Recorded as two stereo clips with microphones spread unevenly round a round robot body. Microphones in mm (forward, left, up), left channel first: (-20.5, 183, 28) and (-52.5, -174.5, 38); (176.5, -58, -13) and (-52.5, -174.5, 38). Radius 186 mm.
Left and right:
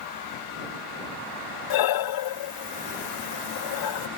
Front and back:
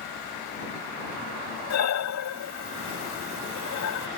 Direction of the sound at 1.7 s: 60° left.